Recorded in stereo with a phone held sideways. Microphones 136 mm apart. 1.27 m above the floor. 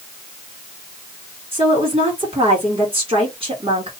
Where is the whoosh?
I don't hear a whoosh.